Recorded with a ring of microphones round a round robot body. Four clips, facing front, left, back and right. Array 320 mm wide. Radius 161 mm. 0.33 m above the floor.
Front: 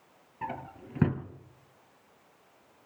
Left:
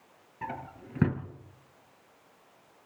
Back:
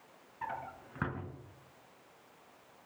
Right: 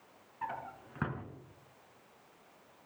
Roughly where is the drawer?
Ahead left.